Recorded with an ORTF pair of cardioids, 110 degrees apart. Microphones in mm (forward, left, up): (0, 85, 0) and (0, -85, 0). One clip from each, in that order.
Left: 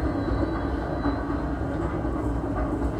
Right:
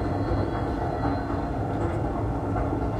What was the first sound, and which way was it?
A machine running, 60° right.